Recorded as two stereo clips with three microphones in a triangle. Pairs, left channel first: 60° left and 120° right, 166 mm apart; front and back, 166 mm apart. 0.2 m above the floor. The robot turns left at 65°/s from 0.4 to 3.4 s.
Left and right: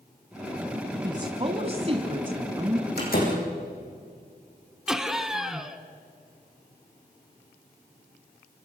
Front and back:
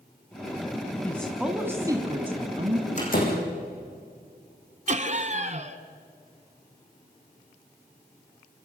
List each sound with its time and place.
1.0 s a woman speaking: 70° right, 1.5 m; by 2.9 s 170° left, 1.5 m
3.0 s a door slam: 45° left, 7 m; by 3.4 s 15° left, 7 m
4.9 s laughter: 155° left, 1.6 m